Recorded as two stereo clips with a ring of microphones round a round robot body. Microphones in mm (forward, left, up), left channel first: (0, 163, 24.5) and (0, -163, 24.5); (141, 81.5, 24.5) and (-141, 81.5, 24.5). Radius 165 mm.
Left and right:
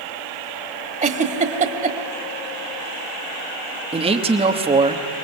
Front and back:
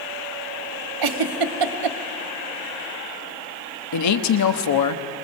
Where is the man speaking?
20° right, 1.4 m.